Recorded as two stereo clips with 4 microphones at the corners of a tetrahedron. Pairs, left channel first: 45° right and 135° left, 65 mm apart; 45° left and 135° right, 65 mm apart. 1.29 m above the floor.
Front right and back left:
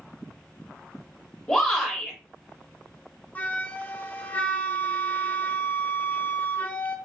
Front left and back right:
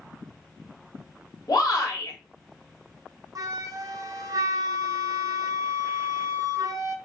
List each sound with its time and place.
1.5 s a shout: 35° left, 2.5 m
3.4 s a flute: 110° right, 0.7 m